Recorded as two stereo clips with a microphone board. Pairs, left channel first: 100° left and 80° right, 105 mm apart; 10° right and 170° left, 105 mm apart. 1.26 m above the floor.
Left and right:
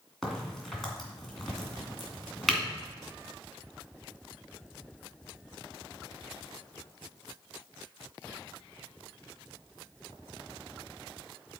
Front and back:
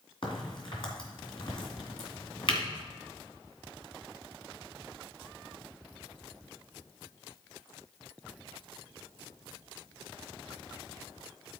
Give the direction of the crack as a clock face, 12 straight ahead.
12 o'clock.